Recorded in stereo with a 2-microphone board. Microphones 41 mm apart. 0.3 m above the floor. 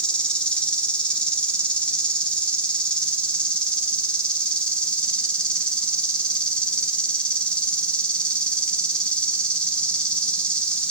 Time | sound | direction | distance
0.0 | an insect | 25° left (ahead or behind) | 1.0 m